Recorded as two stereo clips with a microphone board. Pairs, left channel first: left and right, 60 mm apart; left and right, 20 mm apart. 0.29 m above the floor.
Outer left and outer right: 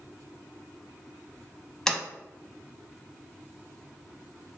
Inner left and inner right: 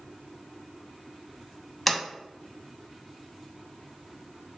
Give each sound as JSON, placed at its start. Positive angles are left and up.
{"t": 1.9, "sound": "a sliding door", "side_deg": 10, "distance_m": 0.6}